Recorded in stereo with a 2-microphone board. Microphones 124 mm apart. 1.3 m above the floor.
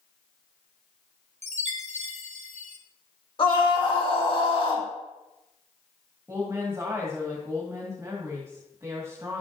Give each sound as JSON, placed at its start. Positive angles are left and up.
{"t": 1.4, "sound": "a chime", "side_deg": -65, "distance_m": 0.9}
{"t": 3.4, "sound": "a scream", "side_deg": 45, "distance_m": 2.5}
{"t": 6.3, "sound": "a woman speaking", "side_deg": -20, "distance_m": 1.8}